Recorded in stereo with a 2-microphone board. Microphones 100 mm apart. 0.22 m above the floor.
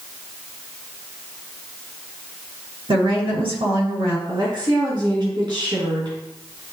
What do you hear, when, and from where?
2.9 s a woman speaking: 65° right (ahead or behind), 4 m
4.3 s a woman speaking: 55° right (ahead or behind), 2.5 m